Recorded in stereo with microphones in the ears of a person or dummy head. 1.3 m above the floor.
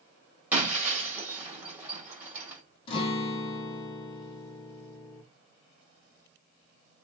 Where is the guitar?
35° left (ahead or behind), 1.3 m.